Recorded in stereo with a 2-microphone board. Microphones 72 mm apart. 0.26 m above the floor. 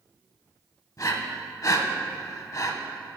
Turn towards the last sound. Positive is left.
turn(degrees=50)  # may be behind; listen again after turning